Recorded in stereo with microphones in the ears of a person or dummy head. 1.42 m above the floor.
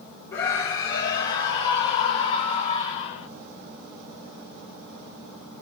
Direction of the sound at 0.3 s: 20° left (ahead or behind).